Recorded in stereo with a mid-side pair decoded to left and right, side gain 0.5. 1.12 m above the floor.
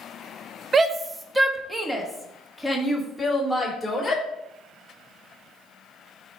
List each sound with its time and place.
0.7 s a shout: 35° right, 0.9 m; by 4.2 s 10° left, 3 m